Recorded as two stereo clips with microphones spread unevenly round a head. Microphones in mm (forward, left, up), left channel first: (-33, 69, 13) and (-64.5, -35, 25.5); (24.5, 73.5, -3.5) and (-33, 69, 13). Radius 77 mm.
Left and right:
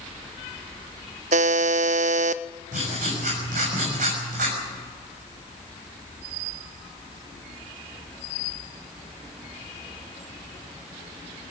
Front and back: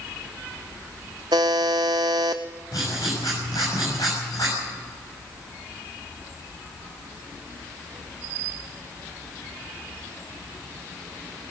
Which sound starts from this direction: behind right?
A buzzer, at 1.3 s.